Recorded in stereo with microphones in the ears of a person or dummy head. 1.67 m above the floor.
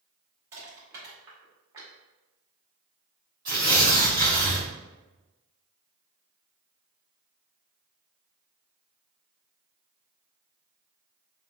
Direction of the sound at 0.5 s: 20° right (ahead or behind).